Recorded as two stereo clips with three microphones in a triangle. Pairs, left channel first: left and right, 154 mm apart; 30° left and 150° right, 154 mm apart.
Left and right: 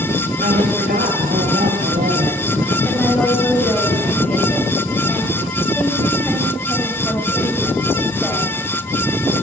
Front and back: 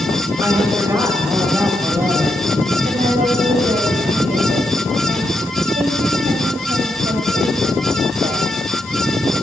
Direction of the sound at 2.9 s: 175° left.